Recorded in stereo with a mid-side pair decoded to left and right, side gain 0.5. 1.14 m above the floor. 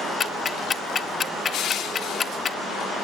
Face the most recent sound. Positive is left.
turn(degrees=60)